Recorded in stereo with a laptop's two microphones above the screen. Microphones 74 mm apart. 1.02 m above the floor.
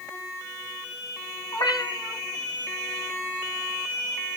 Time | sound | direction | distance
1.5 | a cat meowing | 75° left (ahead or behind) | 1.9 m